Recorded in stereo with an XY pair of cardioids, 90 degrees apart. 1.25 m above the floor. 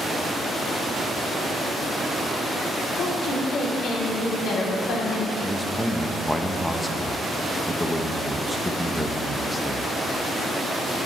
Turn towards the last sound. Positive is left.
turn(degrees=5)